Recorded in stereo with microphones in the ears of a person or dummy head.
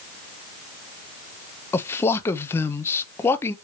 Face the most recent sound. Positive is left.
turn(degrees=10)  # may be behind; listen again after turning